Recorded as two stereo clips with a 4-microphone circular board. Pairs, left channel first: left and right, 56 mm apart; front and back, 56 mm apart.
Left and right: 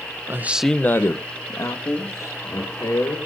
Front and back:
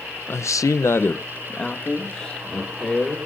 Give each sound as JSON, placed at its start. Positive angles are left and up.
{"t": 0.3, "sound": "a man speaking", "azimuth_deg": -45, "distance_m": 0.7}